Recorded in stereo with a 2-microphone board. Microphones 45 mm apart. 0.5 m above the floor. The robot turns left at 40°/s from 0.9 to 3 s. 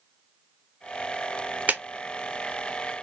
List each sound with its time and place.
1.7 s a clap: 30° right (ahead or behind), 0.9 m; by 1.8 s 35° right (ahead or behind), 0.9 m